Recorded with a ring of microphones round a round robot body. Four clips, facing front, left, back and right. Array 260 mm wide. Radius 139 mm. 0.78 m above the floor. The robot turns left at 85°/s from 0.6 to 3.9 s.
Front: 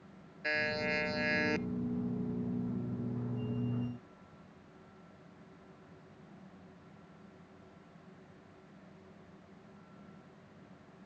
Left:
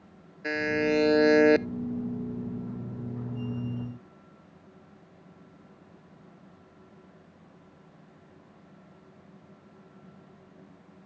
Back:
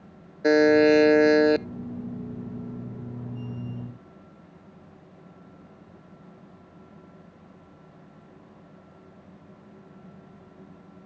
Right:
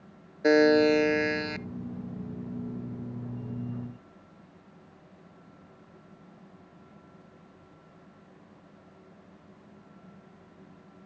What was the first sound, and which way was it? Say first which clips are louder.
A buzzer: right 8 dB, back 19 dB; 150° right.